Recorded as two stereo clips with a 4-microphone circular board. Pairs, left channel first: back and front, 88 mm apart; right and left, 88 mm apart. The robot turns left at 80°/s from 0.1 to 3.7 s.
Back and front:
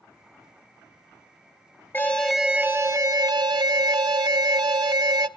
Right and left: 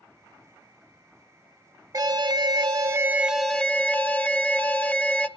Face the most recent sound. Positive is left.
turn(degrees=-20)